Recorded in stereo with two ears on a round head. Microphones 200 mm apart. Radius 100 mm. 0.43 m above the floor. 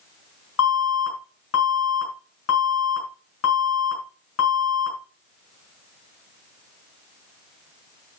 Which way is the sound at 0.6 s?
75° left (ahead or behind).